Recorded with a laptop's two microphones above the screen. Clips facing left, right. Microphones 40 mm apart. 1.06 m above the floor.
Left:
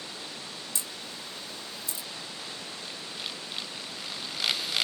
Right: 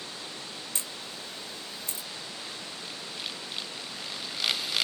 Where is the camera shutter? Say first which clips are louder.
Even; 45° right (ahead or behind), 0.6 m.